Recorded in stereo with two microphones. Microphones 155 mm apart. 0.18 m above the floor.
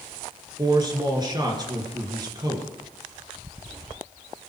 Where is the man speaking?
30° right (ahead or behind), 3 m.